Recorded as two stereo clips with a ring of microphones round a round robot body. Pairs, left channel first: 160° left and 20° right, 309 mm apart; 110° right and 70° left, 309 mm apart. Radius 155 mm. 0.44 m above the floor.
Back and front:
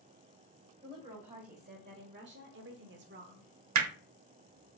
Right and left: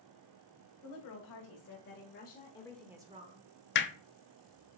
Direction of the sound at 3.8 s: 60° right.